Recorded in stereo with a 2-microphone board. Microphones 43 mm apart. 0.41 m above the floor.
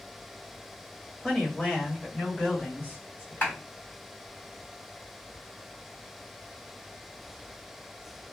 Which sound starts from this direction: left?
A clap, at 3.4 s.